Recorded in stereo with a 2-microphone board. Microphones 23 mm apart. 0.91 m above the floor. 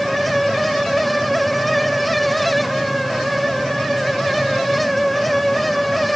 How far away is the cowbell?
I don't hear a cowbell.